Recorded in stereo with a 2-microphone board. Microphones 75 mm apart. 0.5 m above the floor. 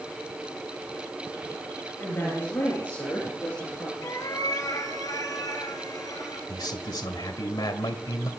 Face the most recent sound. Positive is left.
turn(degrees=65)  # may be behind; listen again after turning